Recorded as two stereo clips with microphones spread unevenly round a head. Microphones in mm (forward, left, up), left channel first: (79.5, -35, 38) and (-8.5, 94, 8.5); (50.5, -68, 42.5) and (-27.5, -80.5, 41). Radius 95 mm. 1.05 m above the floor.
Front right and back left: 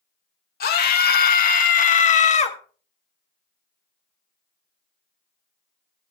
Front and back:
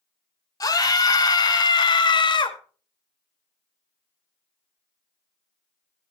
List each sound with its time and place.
0.6 s a scream: 30° right, 2.5 m; by 2.6 s 5° right, 1.7 m